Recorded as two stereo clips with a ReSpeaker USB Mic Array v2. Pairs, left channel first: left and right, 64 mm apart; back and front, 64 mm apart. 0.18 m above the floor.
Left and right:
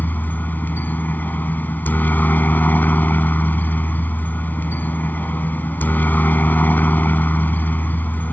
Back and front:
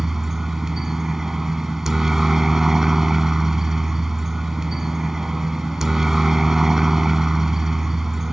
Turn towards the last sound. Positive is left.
turn(degrees=75)